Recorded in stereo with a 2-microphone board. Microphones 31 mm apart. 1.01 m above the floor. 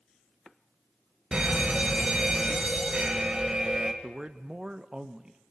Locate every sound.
1.3 s a fire alarm: 30° right (ahead or behind), 1.8 m
4.0 s a man speaking: 25° right (ahead or behind), 0.8 m